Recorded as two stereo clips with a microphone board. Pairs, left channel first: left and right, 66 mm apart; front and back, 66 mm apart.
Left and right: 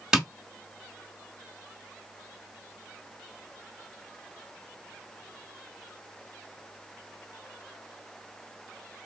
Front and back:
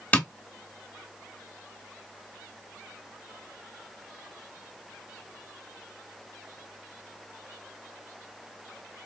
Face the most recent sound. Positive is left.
turn(degrees=-25)